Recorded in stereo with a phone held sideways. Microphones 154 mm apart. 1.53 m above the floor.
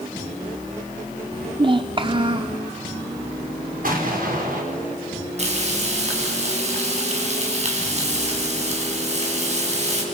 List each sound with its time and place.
1.3 s a child speaking: 35° right (ahead or behind), 0.6 m
3.8 s an explosion: 65° right (ahead or behind), 4.5 m
5.4 s frying: 45° right (ahead or behind), 5.5 m